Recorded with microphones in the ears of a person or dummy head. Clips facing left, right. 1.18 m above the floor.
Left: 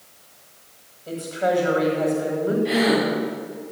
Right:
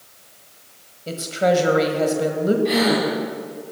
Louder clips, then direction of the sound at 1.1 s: Right 4 dB; 45° right (ahead or behind).